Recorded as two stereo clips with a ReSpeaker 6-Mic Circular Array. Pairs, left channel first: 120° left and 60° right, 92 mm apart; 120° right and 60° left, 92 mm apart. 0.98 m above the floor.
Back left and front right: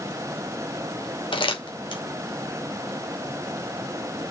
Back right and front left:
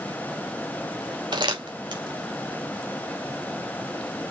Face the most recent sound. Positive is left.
turn(degrees=95)